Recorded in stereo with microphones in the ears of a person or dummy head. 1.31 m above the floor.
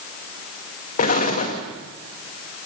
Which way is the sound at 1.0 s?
35° left (ahead or behind).